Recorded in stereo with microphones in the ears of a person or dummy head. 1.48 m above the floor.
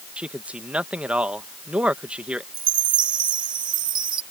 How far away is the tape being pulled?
I don't hear tape being pulled.